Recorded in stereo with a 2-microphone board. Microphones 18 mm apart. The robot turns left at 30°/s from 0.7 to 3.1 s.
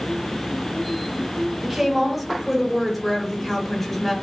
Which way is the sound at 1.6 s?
10° right (ahead or behind).